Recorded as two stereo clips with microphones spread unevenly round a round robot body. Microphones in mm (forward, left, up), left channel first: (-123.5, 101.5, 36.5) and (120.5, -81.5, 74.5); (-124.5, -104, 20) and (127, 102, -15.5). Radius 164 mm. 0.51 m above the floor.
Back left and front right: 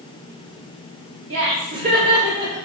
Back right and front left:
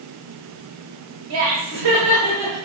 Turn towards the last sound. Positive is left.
turn(degrees=40)